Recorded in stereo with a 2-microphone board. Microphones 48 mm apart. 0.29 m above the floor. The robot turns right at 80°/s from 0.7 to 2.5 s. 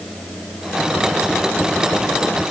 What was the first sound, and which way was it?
Only background noise.